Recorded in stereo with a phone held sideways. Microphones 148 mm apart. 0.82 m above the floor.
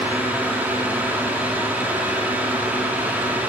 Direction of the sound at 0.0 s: 10° right (ahead or behind).